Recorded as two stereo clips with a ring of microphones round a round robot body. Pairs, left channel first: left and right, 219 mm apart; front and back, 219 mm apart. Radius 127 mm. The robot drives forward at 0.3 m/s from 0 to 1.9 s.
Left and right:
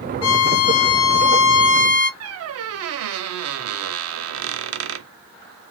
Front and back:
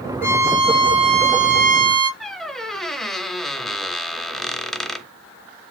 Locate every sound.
0.2 s a violin: 100° left, 0.8 m; by 2.1 s 130° left, 1.0 m
2.2 s a squeak: 90° right, 0.5 m